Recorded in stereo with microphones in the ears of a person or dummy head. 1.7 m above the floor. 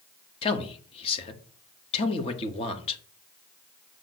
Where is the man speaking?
35° left (ahead or behind), 1.1 m.